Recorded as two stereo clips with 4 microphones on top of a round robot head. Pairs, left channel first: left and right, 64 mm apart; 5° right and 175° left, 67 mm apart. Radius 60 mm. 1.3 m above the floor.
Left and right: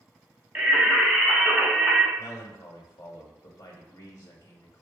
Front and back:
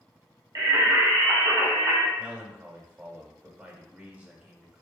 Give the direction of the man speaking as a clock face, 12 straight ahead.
9 o'clock.